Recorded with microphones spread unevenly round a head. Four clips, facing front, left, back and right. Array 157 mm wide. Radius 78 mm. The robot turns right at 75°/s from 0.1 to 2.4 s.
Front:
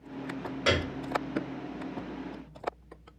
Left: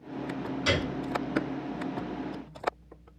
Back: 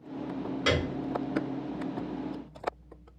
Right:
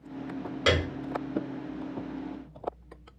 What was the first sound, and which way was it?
A piano, 80° right.